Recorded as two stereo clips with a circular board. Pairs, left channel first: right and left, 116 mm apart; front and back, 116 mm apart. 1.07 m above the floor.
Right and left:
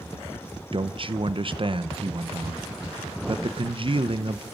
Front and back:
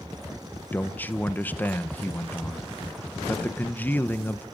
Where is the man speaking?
70° left, 0.7 m.